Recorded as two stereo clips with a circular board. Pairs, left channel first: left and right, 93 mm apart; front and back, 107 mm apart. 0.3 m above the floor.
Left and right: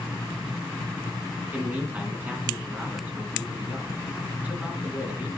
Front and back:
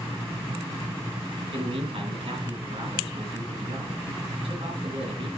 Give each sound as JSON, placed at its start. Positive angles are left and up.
{"t": 1.5, "sound": "a man speaking", "azimuth_deg": -160, "distance_m": 2.5}